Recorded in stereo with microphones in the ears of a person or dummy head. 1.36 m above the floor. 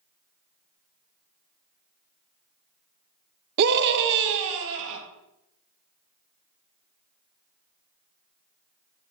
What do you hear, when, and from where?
3.6 s a scream: 55° right (ahead or behind), 0.9 m; by 5.0 s 70° right (ahead or behind), 2.5 m